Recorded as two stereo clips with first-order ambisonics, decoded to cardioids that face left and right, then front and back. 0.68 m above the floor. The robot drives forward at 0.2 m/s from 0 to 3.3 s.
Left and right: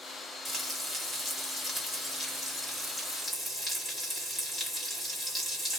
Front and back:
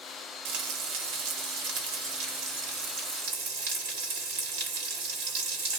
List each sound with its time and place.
0.5 s frying: 170° left, 1.1 m; by 5.8 s 175° left, 1.6 m